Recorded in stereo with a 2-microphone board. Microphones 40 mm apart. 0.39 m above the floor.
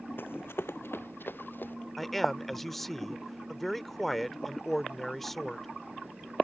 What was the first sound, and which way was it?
Running footsteps, 60° left (ahead or behind).